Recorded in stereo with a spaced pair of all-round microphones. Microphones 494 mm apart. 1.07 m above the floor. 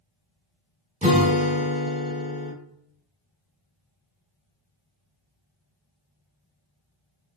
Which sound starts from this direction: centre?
A guitar, at 1.0 s.